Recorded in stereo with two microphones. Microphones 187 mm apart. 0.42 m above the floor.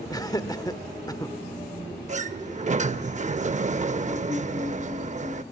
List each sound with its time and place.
0.1 s laughter: 20° left (ahead or behind), 0.8 m
2.1 s a sliding door: 40° right (ahead or behind), 0.5 m